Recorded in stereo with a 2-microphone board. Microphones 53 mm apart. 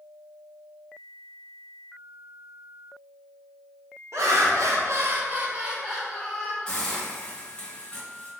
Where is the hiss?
20° left (ahead or behind), 1.4 m.